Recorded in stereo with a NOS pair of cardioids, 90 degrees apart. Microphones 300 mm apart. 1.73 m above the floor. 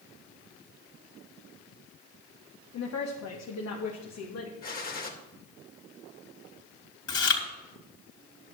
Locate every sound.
2.7 s a woman speaking: 65° left, 1.5 m
4.6 s a gunshot: 30° left, 3 m
7.1 s chewing: 50° left, 3.5 m